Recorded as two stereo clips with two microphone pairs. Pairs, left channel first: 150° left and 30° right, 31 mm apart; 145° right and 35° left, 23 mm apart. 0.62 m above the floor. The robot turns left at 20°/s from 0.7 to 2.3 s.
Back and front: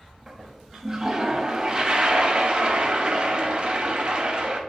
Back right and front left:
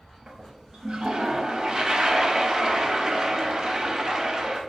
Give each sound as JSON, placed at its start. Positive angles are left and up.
{"t": 0.3, "sound": "a toilet flushing", "azimuth_deg": 40, "distance_m": 0.5}